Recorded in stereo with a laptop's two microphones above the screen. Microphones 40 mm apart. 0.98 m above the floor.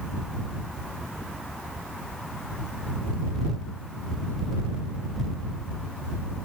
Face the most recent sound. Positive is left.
No sound to turn to.